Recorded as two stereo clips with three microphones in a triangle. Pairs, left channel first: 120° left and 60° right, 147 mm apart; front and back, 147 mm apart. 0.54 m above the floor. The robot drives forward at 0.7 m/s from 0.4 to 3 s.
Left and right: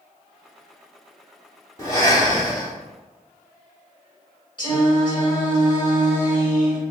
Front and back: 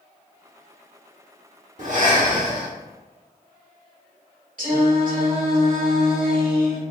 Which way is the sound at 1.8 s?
Straight behind.